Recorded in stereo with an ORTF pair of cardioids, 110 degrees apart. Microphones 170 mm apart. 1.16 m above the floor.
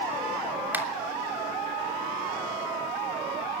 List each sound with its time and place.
0.7 s a finger snap: 10° right, 3 m